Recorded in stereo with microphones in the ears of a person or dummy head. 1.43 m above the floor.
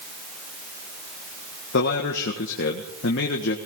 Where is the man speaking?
60° left (ahead or behind), 1.6 m.